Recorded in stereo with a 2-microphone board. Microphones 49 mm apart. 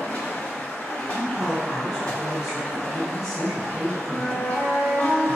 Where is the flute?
20° left (ahead or behind), 1.3 m.